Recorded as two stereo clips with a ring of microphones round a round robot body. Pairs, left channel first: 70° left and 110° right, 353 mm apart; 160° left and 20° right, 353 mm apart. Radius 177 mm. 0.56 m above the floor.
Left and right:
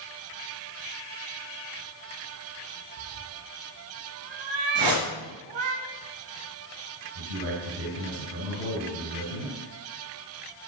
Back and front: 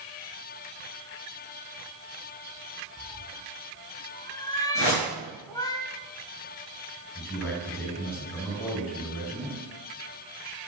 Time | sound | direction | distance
3.0 | a cat meowing | 125° right | 1.5 m
4.8 | a whoosh | 150° right | 4.5 m
7.2 | a man speaking | 120° right | 6.5 m